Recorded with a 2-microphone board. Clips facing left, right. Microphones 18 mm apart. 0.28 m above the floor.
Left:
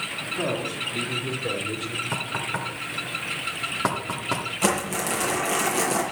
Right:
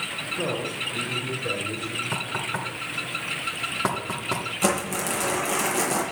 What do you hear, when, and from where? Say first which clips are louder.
0.4 s a man speaking: left 2 dB; 30° left (ahead or behind), 8.5 m; by 2.0 s 35° left (ahead or behind), 8 m
2.1 s knocking: even; 5° left (ahead or behind), 2.5 m
4.6 s crumpling: even; 5° left (ahead or behind), 8.5 m